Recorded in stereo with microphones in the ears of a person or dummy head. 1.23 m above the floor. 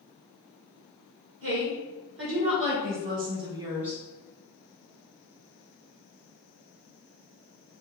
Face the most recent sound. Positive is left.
turn(degrees=0)  # may be behind; listen again after turning